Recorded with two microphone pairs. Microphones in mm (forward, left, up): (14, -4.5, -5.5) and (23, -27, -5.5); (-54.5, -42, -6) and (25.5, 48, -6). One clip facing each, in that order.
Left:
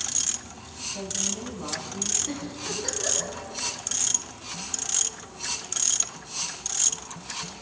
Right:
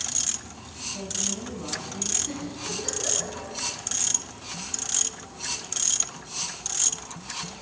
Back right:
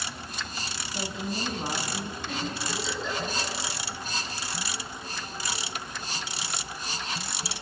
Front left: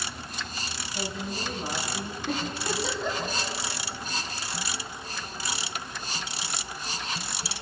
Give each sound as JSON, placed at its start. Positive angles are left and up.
{"t": 0.9, "sound": "a woman speaking", "azimuth_deg": 180, "distance_m": 1.0}
{"t": 2.3, "sound": "a giggle", "azimuth_deg": 45, "distance_m": 1.7}